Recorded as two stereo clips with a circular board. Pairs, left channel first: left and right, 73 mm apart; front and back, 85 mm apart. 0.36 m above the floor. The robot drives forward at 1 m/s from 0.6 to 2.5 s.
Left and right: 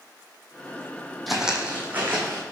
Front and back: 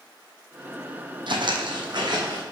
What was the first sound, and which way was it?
Footsteps, straight behind.